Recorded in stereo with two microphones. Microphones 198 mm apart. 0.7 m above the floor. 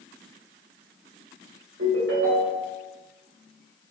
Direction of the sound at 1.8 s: 75° right (ahead or behind).